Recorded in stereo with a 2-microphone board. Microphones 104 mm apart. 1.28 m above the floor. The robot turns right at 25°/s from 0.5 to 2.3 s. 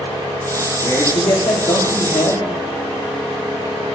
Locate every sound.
0.8 s a man speaking: 35° left, 1.0 m; by 2.5 s 70° left, 1.0 m